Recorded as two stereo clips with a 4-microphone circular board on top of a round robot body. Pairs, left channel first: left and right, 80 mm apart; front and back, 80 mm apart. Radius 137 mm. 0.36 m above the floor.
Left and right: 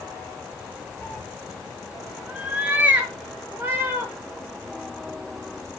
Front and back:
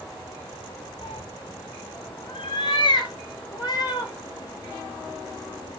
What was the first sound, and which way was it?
A cat meowing, 20° left.